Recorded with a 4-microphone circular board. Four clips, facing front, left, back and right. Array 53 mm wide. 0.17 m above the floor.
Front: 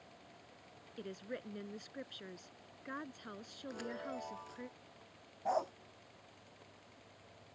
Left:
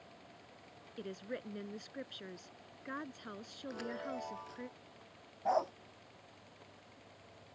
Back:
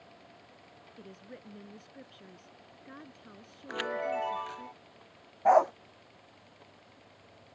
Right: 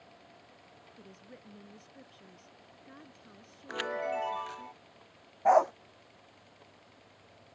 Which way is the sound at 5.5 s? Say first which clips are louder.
Right 10 dB, back 14 dB; 145° right.